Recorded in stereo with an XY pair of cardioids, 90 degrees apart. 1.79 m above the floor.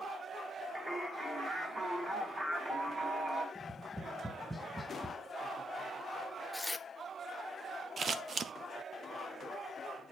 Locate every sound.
0.8 s singing: 30° right, 2 m
3.5 s tapping: 5° right, 0.8 m
6.5 s tearing paper: 10° left, 0.5 m
8.0 s scissors: 45° right, 0.6 m